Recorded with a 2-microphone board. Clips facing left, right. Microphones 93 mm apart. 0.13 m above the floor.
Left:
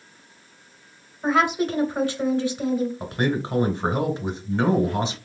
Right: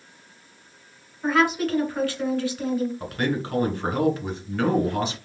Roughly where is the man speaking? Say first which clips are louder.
Left 2 dB; left.